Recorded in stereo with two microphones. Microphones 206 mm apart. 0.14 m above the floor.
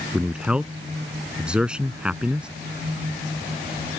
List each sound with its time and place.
0.1 s a man speaking: 5° right (ahead or behind)